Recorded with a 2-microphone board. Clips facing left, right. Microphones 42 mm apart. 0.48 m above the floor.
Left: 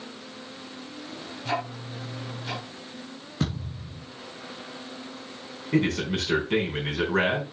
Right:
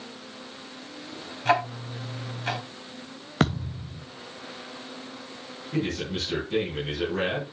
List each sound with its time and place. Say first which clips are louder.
1.4 s ticking: right 7 dB; 60° right (ahead or behind), 3 m
3.4 s a thud: right 6 dB; 70° right (ahead or behind), 2 m
5.7 s a man speaking: left 4 dB; 65° left (ahead or behind), 3.5 m